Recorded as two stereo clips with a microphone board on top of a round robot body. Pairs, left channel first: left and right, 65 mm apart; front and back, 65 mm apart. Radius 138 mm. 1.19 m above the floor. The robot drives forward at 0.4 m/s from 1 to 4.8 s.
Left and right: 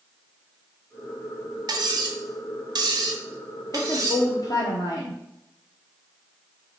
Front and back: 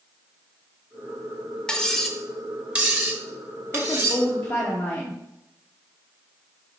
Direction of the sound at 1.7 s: 80° right.